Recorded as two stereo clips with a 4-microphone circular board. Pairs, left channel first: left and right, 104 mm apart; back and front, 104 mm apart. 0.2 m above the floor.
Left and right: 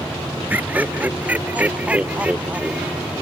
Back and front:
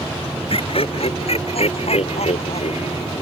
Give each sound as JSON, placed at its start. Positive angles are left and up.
{"t": 0.5, "sound": "laughter", "azimuth_deg": -160}